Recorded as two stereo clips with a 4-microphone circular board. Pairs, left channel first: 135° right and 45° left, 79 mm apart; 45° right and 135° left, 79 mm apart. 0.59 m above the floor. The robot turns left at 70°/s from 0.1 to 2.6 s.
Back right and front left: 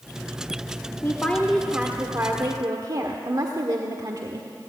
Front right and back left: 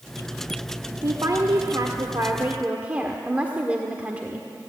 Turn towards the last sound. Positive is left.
turn(degrees=65)